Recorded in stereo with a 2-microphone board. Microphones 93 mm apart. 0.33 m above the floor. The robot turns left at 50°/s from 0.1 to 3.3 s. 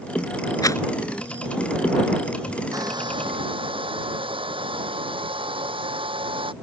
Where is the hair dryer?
40° right (ahead or behind); by 6.5 s 70° right (ahead or behind).